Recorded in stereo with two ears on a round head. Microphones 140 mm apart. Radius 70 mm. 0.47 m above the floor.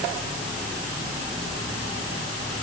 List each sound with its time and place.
Only background noise.